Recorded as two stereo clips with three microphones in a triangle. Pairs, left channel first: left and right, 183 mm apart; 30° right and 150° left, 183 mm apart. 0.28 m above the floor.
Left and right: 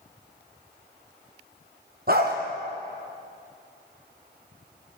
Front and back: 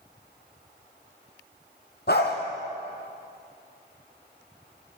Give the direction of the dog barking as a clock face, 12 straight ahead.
2 o'clock.